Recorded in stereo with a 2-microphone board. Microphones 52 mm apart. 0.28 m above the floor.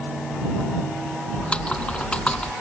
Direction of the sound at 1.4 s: 20° left (ahead or behind).